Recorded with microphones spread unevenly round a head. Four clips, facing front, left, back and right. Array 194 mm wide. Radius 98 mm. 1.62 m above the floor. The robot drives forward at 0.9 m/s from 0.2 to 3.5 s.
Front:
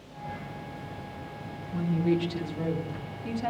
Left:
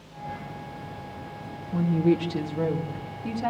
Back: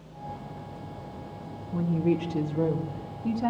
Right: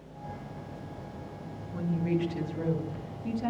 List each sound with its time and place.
1.7 s a woman speaking: 115° left, 2.5 m; by 3.5 s 140° left, 3.5 m